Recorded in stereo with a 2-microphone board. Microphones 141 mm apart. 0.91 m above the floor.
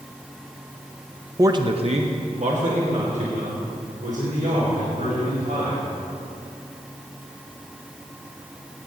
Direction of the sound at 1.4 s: 20° right (ahead or behind).